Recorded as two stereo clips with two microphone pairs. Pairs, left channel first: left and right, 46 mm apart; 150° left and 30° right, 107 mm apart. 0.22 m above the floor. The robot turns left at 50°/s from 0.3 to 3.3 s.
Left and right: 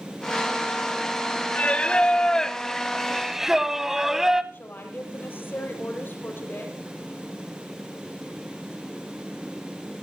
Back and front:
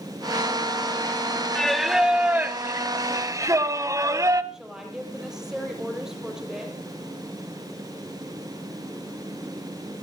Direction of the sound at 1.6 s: 70° left.